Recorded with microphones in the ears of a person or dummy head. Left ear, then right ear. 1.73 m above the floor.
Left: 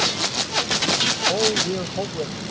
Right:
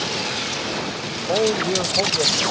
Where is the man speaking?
75° right (ahead or behind).